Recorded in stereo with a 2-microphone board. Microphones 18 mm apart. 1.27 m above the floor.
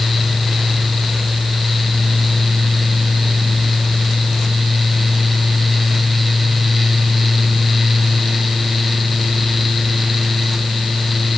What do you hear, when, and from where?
Only background noise.